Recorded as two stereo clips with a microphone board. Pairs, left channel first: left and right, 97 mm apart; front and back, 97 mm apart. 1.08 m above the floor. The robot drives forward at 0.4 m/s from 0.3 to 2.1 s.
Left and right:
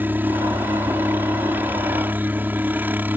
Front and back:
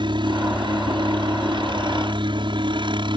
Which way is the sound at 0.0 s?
160° right.